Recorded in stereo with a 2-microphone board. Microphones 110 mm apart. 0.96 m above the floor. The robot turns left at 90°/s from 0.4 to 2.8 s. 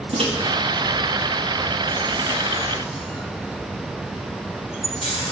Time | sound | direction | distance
0.1 | a microwave | 65° right (ahead or behind) | 1.5 m